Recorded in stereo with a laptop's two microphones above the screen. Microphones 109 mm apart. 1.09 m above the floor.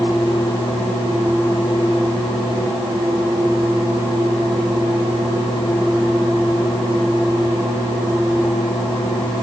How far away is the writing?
I don't hear writing.